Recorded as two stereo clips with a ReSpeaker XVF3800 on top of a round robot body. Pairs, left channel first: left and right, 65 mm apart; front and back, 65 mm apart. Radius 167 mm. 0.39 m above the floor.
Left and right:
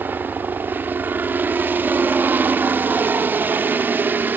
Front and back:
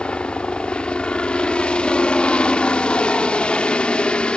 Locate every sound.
0.0 s a helicopter: 60° right